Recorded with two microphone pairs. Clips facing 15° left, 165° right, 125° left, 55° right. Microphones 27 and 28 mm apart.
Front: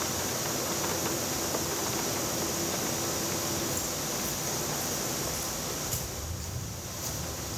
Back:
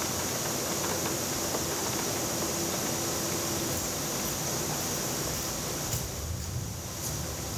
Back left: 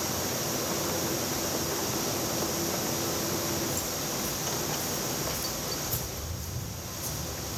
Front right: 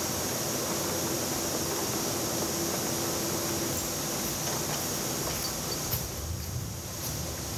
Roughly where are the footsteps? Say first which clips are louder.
Even, even; right.